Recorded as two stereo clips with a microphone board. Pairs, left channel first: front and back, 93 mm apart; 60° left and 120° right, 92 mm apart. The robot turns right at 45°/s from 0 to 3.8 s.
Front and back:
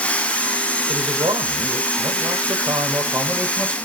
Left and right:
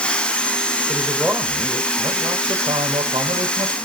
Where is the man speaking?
145° left, 4 m; by 3.8 s 85° right, 4 m.